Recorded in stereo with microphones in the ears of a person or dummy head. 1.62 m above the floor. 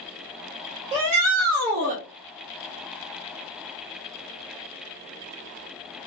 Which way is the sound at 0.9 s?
30° right (ahead or behind).